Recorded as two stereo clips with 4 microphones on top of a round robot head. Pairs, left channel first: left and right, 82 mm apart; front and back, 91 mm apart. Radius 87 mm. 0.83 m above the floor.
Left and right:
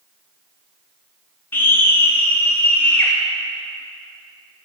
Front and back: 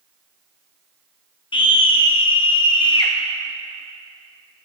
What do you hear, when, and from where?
1.5 s a scream: 25° left, 0.7 m